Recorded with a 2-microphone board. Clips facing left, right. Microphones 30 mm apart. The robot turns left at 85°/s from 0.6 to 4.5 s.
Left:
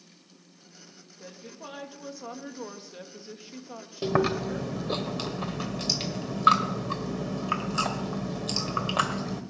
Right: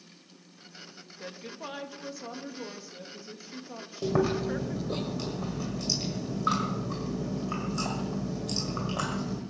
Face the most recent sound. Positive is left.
turn(degrees=85)